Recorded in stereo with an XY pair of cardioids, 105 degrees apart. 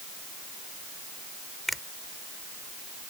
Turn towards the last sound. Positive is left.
turn(degrees=5)